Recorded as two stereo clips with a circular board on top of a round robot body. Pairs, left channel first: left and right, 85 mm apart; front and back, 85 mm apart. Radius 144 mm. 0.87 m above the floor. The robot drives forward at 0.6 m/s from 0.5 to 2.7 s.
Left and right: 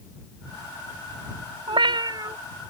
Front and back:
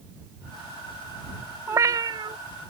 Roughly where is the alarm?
No alarm in this recording.